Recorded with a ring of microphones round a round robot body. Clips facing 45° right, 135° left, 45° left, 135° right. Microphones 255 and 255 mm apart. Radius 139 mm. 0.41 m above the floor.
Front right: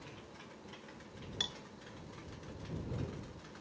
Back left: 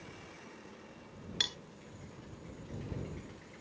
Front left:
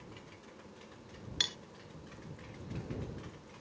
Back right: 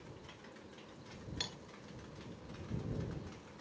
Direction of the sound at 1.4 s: 95° left.